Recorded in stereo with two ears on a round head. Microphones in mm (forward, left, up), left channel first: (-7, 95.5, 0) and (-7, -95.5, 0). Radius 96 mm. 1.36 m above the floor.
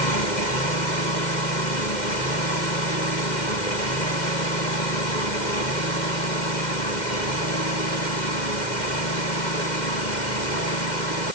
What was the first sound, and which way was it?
Only background noise.